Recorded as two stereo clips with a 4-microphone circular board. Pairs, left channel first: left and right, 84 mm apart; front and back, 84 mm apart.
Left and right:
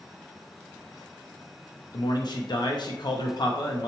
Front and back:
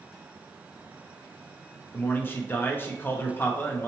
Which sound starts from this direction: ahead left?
A man speaking, at 1.9 s.